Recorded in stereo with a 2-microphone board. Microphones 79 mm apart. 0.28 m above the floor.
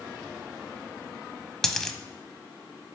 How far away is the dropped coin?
About 0.7 m.